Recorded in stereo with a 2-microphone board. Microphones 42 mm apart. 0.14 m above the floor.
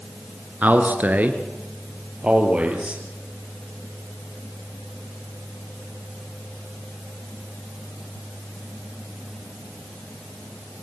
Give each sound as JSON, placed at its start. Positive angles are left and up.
{"t": 0.6, "sound": "a man speaking", "side_deg": -45, "distance_m": 2.0}